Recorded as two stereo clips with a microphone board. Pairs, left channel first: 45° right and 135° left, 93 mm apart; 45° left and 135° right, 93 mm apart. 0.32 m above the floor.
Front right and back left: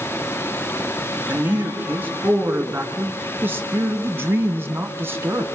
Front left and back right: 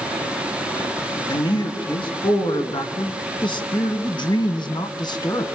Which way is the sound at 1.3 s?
70° left.